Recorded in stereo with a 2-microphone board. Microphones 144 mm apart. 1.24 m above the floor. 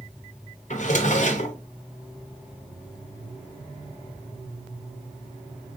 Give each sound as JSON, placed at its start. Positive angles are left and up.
{"t": 0.7, "sound": "a drawer", "side_deg": 60, "distance_m": 0.7}